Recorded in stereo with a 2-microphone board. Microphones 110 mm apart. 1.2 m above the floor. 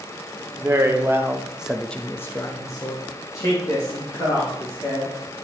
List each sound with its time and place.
0.6 s a man speaking: 25° right (ahead or behind), 1.2 m; by 5.1 s 30° left (ahead or behind), 3 m